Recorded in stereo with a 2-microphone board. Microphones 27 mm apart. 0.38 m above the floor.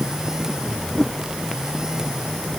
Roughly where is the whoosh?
Centre.